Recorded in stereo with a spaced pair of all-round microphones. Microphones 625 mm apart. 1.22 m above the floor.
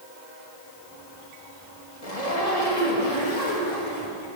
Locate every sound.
2.0 s a zipper: 70° left (ahead or behind), 2.5 m